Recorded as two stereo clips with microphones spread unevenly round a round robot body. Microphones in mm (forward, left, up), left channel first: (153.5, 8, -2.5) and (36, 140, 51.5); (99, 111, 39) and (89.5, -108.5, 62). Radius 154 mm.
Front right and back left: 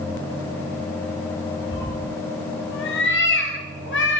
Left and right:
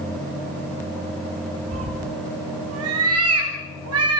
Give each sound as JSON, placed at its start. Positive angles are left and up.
{"t": 1.7, "sound": "a cat meowing", "azimuth_deg": -85, "distance_m": 4.5}